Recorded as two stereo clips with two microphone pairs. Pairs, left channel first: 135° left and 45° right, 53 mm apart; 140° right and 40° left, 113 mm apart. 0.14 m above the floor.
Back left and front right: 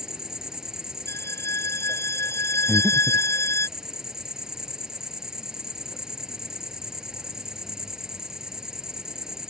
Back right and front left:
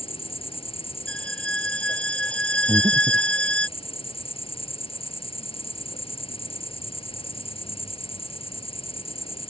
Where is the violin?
140° left.